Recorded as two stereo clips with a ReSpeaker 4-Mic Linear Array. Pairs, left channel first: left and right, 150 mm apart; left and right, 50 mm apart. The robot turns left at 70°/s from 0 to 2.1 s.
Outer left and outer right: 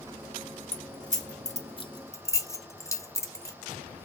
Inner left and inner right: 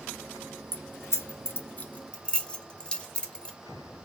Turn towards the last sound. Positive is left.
turn(degrees=20)  # may be behind; listen again after turning